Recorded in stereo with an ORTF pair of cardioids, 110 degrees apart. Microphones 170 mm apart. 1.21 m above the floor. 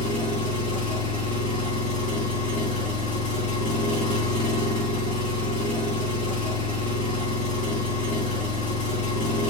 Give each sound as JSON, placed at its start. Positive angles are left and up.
{"t": 0.0, "sound": "an engine running", "azimuth_deg": 45, "distance_m": 1.6}